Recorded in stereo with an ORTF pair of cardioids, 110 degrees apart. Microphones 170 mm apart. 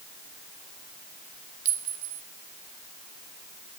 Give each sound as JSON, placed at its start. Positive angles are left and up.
{"t": 1.6, "sound": "a clink", "azimuth_deg": -45, "distance_m": 1.7}